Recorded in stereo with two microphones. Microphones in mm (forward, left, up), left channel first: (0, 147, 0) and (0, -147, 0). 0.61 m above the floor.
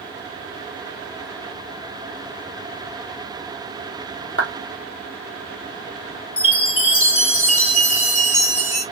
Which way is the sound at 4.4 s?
45° left (ahead or behind).